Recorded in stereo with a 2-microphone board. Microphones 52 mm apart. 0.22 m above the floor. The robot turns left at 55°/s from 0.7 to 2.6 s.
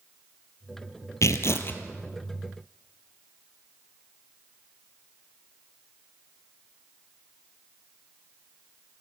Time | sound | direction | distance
1.2 | tearing paper | 75° left | 1.5 m